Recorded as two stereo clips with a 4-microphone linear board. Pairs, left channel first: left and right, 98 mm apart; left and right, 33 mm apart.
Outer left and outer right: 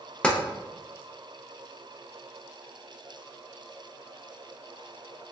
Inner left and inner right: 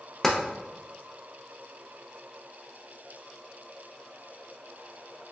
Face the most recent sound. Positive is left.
turn(degrees=10)  # may be behind; listen again after turning